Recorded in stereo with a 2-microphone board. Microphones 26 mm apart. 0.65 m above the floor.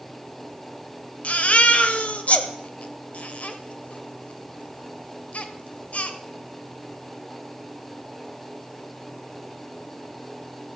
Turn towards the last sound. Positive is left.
turn(degrees=60)  # may be behind; listen again after turning